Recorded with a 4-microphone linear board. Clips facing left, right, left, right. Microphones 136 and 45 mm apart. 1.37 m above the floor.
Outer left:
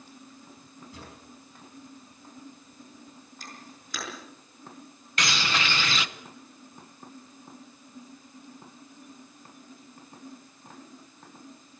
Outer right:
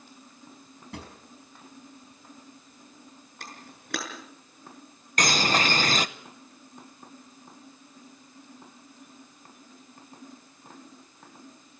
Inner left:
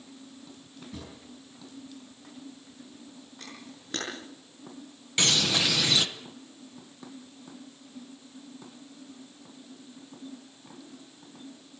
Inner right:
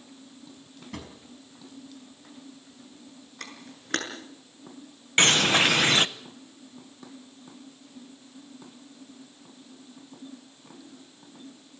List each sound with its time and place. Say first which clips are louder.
0.9 s a drawer: outer right 6 dB, inner right 3 dB; 70° right (ahead or behind), 4.5 m
3.4 s a camera shutter: outer right 1 dB, inner right 3 dB; 65° right (ahead or behind), 6.5 m
5.2 s a bird: outer right 5 dB, inner right 6 dB; 45° right (ahead or behind), 0.8 m